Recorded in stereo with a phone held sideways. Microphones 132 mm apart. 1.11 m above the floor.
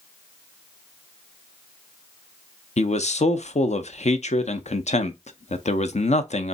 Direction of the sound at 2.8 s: 55° left (ahead or behind).